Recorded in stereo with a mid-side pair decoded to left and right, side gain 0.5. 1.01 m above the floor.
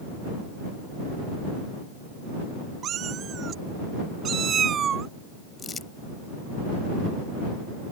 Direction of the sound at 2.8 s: 55° right.